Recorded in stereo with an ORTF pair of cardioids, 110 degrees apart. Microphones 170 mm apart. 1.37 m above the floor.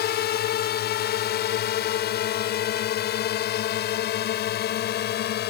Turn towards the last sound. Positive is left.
turn(degrees=65)